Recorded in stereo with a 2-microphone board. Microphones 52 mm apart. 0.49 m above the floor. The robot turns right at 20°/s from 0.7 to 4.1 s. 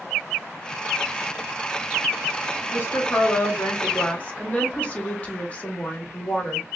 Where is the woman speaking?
45° left (ahead or behind), 1.1 m; by 6.6 s 25° left (ahead or behind), 1.1 m.